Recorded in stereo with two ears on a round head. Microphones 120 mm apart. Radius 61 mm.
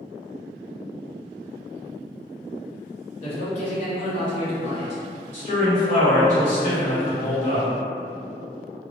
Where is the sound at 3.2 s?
50° left (ahead or behind), 1.1 m.